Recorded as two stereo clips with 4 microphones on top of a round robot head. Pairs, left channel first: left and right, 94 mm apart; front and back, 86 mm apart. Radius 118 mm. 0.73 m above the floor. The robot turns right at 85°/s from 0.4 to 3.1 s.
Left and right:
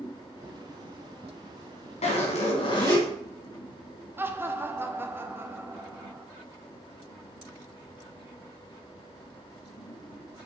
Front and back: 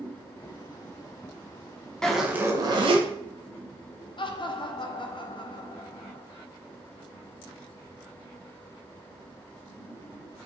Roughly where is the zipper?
Left.